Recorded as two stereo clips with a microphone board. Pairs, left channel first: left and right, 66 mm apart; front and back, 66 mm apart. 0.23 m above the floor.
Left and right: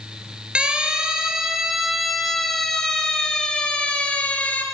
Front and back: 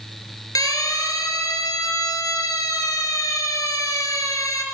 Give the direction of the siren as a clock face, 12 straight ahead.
1 o'clock.